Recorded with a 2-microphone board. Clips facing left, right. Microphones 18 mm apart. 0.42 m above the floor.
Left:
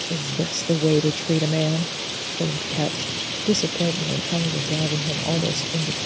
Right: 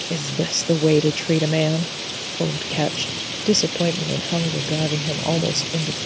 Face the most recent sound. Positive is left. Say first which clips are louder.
# right 5 dB
turn(degrees=-30)  # may be behind; listen again after turning